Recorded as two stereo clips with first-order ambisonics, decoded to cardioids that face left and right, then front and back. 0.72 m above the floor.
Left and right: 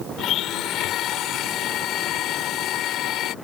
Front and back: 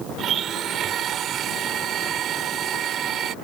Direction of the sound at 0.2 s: 130° left.